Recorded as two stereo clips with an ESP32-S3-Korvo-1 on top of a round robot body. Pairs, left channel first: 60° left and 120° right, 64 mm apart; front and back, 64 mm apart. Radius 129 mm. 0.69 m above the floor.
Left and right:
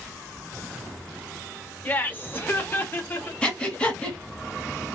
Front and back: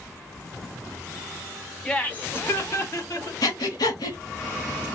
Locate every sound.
1.9 s laughter: 55° left, 1.2 m; by 3.3 s 15° left, 2.0 m
3.4 s breathing: 15° right, 0.8 m